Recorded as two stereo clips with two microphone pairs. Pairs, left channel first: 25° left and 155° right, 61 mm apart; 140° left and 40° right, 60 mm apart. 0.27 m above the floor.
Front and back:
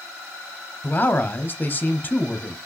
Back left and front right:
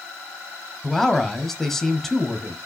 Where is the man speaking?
55° left, 1.2 m.